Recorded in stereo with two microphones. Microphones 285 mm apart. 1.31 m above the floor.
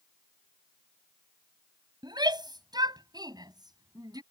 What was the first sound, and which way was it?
A shout, 15° right (ahead or behind).